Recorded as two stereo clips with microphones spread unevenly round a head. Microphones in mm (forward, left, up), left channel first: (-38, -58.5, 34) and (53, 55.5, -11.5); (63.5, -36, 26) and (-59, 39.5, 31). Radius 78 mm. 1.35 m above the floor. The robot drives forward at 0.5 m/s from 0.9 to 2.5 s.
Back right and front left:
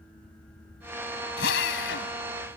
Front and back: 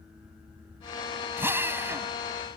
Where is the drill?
135° right; by 2.1 s 140° right.